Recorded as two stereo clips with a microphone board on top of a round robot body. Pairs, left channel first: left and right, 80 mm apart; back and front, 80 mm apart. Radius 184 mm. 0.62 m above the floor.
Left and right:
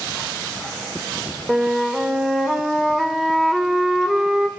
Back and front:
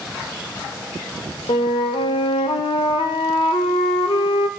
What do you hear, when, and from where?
1.5 s a flute: 175° right, 0.6 m